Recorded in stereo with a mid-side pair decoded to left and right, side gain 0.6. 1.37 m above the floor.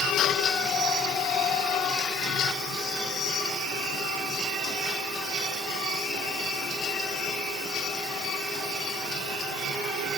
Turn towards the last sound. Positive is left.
No sound to turn to.